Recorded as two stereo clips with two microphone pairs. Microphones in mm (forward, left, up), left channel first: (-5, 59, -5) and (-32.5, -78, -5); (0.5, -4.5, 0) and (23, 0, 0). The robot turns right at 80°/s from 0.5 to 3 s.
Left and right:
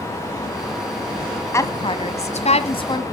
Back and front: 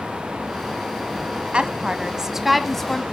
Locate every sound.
1.5 s a woman speaking: 15° left, 1.6 m; by 3.0 s 130° left, 1.6 m